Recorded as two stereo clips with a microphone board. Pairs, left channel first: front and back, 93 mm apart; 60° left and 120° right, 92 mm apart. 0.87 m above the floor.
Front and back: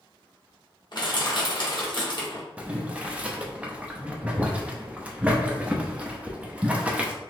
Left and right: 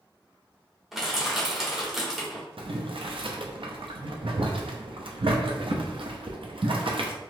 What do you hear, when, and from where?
0.9 s crushing: 35° right, 1.3 m
2.6 s boiling: 105° right, 0.6 m